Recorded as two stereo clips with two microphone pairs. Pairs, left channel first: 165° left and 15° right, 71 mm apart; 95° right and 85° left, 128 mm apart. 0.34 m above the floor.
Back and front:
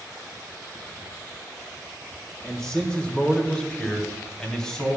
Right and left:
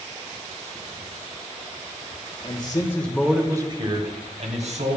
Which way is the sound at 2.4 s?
120° right.